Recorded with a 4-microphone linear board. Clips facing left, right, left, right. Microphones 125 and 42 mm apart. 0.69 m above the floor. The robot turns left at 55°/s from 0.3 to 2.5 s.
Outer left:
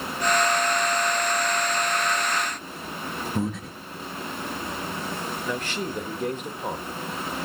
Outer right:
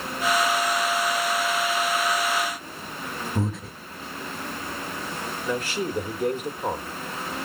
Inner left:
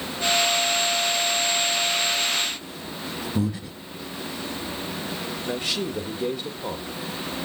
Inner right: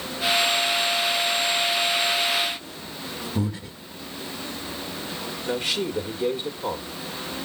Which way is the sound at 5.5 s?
10° right (ahead or behind).